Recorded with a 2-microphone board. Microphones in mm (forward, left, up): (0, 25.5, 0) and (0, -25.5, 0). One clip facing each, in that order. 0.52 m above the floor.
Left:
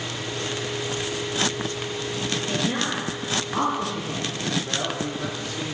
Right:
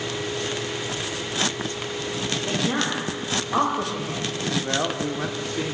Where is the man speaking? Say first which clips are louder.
Right 3 dB; 40° right (ahead or behind), 0.9 m.